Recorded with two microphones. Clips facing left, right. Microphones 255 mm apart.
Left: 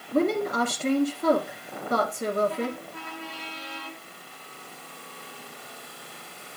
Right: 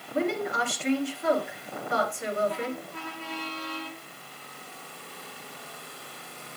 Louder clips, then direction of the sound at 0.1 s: Left 5 dB; 40° left (ahead or behind).